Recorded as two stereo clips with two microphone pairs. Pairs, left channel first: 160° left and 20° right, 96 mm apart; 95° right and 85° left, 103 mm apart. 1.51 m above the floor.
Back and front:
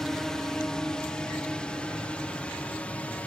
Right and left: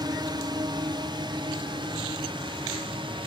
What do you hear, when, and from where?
0.0 s a drone: 80° left; by 3.3 s 90° left